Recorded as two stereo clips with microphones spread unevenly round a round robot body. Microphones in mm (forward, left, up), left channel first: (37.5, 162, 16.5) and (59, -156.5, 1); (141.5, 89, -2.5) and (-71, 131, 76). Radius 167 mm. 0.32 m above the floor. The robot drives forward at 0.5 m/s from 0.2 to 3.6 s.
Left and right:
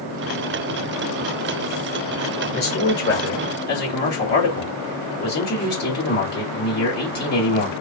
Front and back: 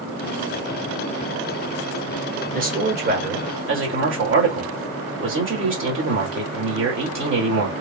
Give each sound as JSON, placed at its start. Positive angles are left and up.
{"t": 2.5, "sound": "a man speaking", "azimuth_deg": 110, "distance_m": 1.4}